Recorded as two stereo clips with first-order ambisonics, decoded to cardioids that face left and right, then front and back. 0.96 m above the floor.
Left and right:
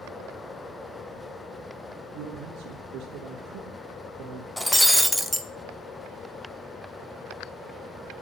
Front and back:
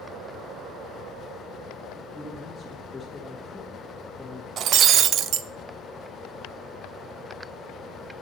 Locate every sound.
2.1 s a man speaking: 85° right, 1.3 m
4.6 s breaking glass: straight behind, 0.5 m